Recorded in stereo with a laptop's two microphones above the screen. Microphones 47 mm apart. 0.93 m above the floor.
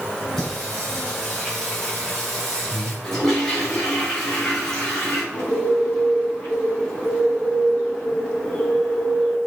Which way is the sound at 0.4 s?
15° left (ahead or behind).